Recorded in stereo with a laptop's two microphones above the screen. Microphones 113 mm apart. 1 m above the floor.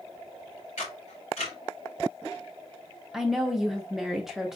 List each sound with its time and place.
0.8 s a camera shutter: 85° left, 3 m
3.1 s a woman speaking: 5° right (ahead or behind), 0.5 m